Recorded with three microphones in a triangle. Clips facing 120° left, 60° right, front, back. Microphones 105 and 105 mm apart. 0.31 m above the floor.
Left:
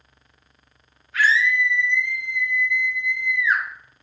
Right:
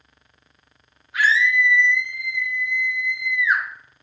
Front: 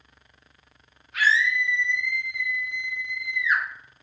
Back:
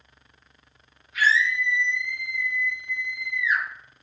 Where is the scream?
10° left, 3 m.